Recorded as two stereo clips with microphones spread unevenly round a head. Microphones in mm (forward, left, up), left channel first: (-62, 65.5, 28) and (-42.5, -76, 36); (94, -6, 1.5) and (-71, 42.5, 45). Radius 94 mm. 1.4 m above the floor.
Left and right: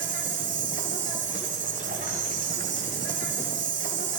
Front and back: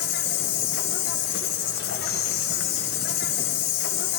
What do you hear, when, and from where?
0.0 s an insect: 55° right, 1.7 m